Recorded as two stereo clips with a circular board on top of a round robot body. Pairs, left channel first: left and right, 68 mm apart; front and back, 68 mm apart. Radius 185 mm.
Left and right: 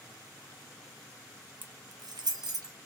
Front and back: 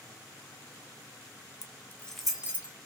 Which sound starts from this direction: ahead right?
Keys jangling, at 1.6 s.